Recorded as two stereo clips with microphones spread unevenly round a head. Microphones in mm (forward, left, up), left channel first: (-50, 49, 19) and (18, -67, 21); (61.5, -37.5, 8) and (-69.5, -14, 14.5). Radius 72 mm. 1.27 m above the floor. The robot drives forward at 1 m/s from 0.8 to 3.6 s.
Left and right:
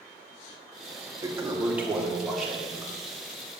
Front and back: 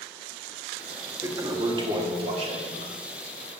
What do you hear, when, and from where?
1.2 s a toilet flushing: 125° right, 1.4 m; by 3.6 s 160° right, 3.5 m